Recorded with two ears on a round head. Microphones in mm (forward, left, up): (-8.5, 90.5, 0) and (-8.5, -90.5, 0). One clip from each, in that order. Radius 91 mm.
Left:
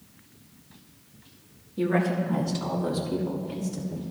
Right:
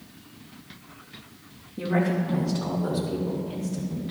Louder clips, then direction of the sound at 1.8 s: Left 1 dB; 70° left (ahead or behind).